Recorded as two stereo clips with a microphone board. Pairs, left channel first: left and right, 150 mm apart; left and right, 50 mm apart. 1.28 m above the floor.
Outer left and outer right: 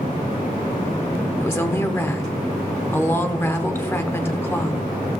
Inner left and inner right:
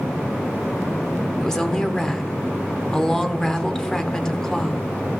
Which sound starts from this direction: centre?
A woman speaking, at 1.4 s.